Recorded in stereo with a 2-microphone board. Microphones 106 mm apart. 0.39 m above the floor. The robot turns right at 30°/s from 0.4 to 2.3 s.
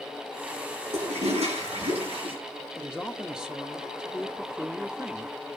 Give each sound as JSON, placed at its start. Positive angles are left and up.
{"t": 0.9, "sound": "a toilet flushing", "azimuth_deg": -95, "distance_m": 7.0}
{"t": 2.8, "sound": "a man speaking", "side_deg": -5, "distance_m": 1.0}